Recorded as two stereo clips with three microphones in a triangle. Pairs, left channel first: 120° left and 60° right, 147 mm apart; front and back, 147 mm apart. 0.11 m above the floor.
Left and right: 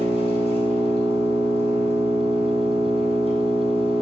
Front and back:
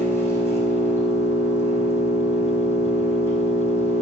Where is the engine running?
70° left, 2.5 m.